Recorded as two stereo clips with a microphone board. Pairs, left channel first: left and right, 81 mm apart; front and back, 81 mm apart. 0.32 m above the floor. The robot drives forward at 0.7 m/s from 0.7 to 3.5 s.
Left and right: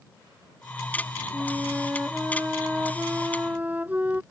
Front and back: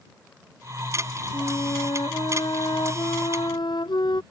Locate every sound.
1.3 s a flute: 20° right